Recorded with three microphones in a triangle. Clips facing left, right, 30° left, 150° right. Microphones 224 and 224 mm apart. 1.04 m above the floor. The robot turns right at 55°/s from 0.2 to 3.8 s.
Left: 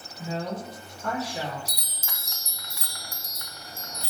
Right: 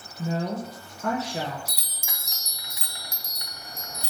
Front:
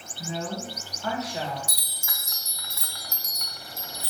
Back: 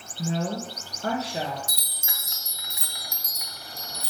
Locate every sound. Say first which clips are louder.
0.2 s a woman speaking: right 3 dB, back 4 dB; 145° right, 0.7 m; by 1.6 s 70° right, 0.7 m
1.7 s a chime: even, even; 170° right, 0.6 m; by 4.1 s 55° right, 0.6 m